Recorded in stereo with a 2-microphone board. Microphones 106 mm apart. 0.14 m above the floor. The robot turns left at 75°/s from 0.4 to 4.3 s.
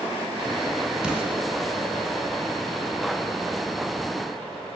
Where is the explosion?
5° right (ahead or behind), 0.9 m; by 1.4 s 15° right (ahead or behind), 0.9 m.